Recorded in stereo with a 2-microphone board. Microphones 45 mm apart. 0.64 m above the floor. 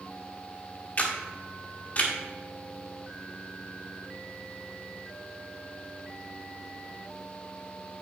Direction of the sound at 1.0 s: 35° left (ahead or behind).